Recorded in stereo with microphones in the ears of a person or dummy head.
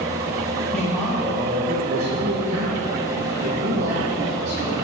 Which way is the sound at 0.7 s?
5° left (ahead or behind).